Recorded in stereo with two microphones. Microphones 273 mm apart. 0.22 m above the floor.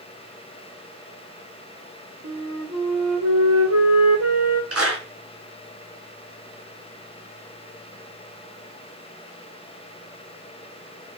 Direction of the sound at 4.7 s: 60° right (ahead or behind).